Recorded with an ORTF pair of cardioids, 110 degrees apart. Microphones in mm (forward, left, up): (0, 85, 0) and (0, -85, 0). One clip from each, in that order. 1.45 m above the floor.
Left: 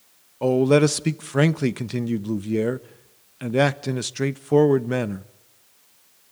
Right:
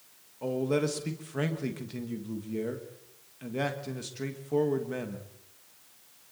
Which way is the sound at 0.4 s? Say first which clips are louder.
Left 11 dB; 60° left.